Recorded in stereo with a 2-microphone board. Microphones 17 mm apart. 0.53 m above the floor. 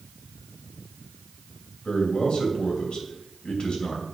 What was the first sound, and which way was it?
A man speaking, 65° left (ahead or behind).